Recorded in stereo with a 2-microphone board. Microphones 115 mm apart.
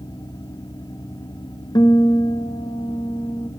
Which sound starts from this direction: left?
A guitar, at 1.8 s.